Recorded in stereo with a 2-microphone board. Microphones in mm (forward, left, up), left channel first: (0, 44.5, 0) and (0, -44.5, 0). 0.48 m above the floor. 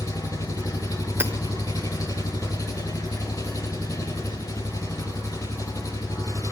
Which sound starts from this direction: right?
Hammering, at 1.2 s.